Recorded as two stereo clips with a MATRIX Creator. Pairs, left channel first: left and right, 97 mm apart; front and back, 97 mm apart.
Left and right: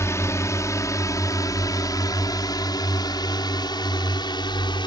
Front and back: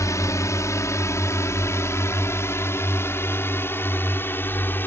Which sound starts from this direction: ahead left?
A drone, at 0.0 s.